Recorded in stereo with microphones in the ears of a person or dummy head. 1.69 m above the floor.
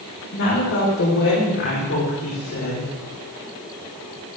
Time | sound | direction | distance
0.3 | a woman speaking | 70° left (ahead or behind) | 4 m